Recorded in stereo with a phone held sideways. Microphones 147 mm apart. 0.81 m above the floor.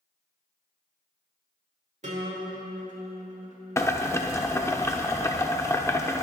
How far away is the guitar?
About 1.7 m.